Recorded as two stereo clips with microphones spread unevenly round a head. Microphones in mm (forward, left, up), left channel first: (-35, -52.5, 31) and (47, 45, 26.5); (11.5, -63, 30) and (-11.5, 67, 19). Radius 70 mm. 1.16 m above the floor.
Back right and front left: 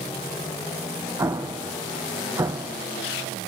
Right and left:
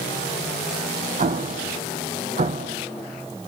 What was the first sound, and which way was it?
An explosion, 115° left.